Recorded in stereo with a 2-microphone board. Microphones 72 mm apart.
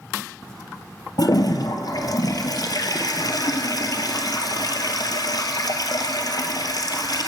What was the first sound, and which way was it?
A toilet flushing, 60° left (ahead or behind).